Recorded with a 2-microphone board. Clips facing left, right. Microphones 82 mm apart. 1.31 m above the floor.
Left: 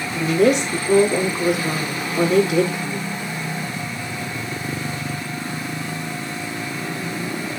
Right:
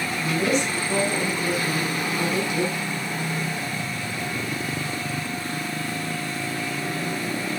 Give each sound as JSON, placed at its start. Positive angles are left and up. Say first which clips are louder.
{"t": 0.1, "sound": "a woman speaking", "louder": "left 8 dB", "side_deg": 80, "distance_m": 3.5}